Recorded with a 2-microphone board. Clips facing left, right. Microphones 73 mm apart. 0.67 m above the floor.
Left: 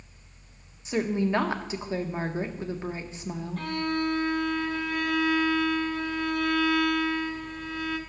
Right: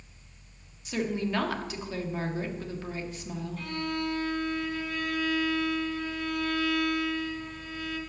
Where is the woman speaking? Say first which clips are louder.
Left 4 dB; 25° left (ahead or behind), 1.1 m.